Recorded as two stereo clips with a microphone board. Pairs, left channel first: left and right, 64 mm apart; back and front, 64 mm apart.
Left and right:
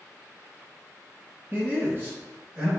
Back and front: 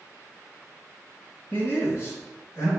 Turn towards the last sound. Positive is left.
turn(degrees=-145)